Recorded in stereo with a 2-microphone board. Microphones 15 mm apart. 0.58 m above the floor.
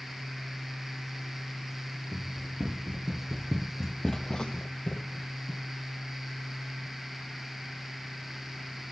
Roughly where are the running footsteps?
Right.